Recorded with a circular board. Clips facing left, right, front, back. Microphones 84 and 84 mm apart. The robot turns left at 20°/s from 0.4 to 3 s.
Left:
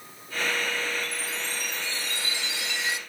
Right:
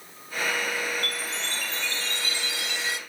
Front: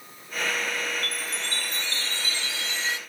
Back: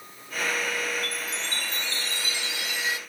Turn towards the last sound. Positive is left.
turn(degrees=120)